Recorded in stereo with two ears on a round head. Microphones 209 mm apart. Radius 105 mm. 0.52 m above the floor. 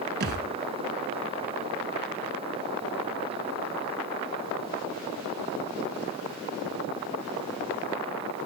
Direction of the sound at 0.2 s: 45° right (ahead or behind).